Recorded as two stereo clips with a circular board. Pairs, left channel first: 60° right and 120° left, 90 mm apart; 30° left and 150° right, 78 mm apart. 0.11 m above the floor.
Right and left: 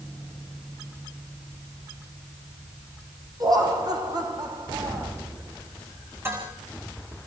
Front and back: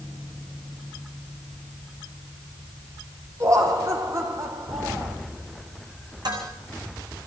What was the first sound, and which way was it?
Laughter, 165° left.